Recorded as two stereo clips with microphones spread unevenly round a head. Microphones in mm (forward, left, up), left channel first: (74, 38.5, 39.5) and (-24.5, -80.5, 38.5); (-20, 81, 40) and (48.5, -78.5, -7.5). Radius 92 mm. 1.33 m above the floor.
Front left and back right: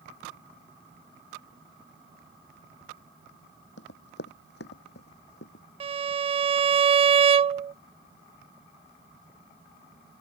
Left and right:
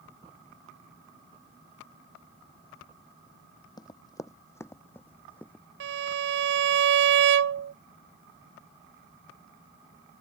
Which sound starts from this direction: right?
A violin, at 5.8 s.